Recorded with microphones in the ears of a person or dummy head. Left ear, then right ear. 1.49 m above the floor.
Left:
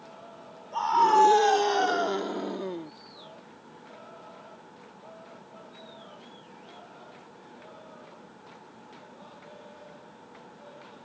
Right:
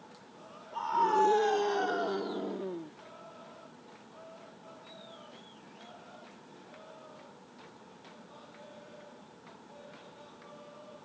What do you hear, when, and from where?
0.7 s a scream: 30° left (ahead or behind)